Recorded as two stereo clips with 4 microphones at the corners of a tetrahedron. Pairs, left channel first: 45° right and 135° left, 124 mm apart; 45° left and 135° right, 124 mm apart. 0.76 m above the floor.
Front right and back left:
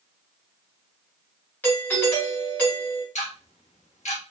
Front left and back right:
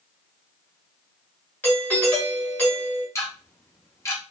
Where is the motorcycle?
No motorcycle in this recording.